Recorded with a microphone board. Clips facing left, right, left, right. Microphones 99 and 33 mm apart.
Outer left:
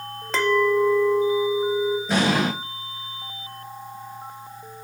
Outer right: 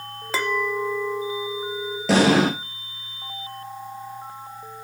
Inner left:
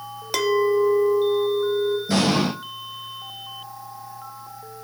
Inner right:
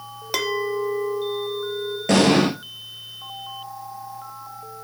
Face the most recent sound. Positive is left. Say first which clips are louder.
# outer right 9 dB, inner right 8 dB
turn(degrees=-90)